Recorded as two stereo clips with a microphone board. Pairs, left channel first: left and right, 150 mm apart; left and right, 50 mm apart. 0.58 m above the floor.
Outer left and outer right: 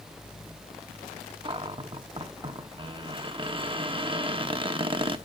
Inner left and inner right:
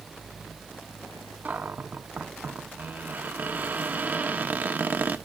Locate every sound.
1.4 s a cupboard door: 35° right (ahead or behind), 0.6 m